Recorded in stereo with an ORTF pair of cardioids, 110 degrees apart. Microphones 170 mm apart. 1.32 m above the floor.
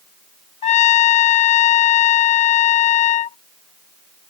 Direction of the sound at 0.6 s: 45° left.